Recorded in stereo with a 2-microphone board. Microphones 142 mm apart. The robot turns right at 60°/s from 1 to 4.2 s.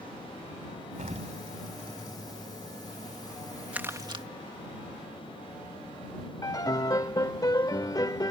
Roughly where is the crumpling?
Centre.